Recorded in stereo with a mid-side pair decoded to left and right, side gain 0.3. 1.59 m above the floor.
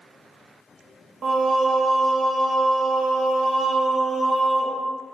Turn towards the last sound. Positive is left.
turn(degrees=-65)